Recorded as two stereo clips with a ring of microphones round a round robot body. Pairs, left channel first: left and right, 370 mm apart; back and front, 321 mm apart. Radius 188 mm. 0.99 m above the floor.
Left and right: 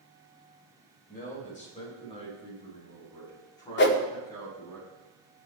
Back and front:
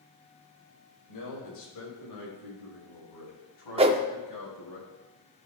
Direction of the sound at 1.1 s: 160° left.